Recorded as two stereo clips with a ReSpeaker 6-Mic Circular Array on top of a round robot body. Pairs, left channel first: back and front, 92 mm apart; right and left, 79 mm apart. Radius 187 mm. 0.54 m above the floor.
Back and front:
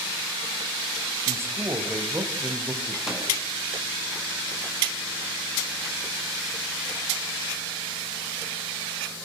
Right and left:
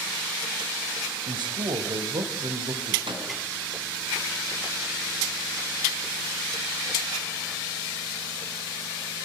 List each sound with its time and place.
1.3 s a man speaking: 65° left, 3.5 m
3.1 s a microwave: 85° left, 7 m